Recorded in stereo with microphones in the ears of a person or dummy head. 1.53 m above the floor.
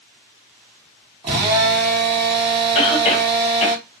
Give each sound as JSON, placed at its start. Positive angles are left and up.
{"t": 1.2, "sound": "a drill", "side_deg": -30, "distance_m": 1.2}
{"t": 2.8, "sound": "a cough", "side_deg": 30, "distance_m": 1.1}